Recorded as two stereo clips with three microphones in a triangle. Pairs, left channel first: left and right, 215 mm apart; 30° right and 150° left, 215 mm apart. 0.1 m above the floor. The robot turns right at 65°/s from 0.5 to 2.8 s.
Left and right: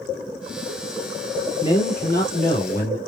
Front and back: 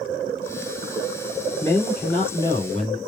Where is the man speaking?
35° left, 2.0 m; by 3.0 s 115° left, 2.0 m.